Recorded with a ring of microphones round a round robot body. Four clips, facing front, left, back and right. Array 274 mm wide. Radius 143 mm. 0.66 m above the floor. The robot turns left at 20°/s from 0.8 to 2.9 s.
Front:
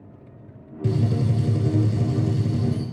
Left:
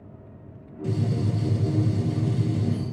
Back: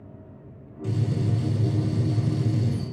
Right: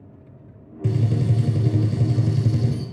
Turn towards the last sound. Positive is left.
turn(degrees=-100)